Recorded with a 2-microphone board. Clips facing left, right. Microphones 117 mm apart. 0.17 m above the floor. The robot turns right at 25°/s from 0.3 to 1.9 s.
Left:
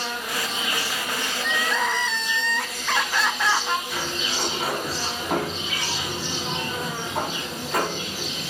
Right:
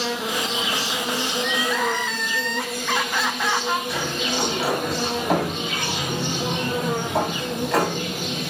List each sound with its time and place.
0.0 s an insect: 95° right, 2 m; by 8.5 s 55° right, 2 m
1.4 s crying: 10° right (ahead or behind), 1.9 m; by 3.8 s centre (ahead or behind), 1.9 m
3.9 s a sliding door: 75° right (ahead or behind), 7.5 m